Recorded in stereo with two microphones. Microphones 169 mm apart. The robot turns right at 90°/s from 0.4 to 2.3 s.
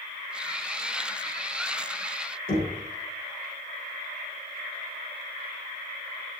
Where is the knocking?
60° left (ahead or behind), 2.5 m.